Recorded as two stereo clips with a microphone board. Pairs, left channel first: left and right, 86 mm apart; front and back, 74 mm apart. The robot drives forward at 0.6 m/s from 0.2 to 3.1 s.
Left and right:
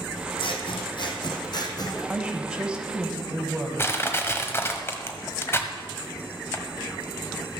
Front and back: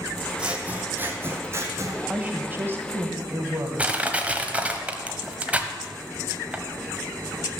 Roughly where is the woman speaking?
Behind right.